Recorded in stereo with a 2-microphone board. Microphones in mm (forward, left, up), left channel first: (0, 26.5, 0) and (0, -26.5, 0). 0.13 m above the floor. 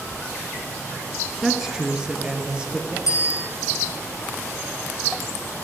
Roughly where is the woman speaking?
Centre.